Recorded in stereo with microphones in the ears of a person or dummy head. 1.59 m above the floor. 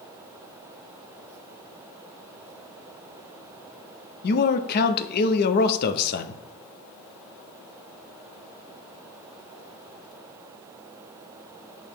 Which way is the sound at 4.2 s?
55° left (ahead or behind).